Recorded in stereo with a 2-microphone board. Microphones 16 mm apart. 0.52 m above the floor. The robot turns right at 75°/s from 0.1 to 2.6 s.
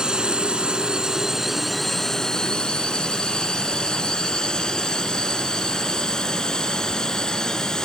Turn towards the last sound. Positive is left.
turn(degrees=45)  # may be behind; listen again after turning